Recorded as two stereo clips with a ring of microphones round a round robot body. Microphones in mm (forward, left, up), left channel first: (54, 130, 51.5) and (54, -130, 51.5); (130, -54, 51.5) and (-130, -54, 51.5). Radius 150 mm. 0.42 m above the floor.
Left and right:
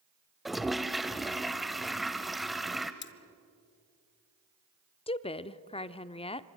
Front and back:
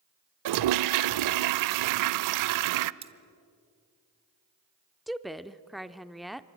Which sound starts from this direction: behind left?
Cutlery clinking, at 3.0 s.